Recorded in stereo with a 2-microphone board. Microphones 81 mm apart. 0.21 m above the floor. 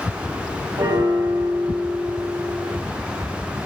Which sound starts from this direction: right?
A piano, at 0.8 s.